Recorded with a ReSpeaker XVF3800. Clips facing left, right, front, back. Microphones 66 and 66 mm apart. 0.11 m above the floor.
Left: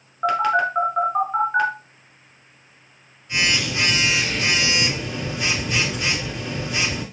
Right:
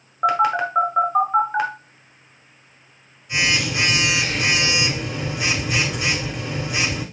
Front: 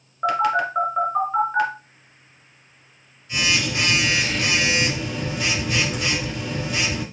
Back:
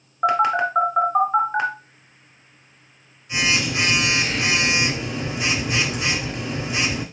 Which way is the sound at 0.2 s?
155° right.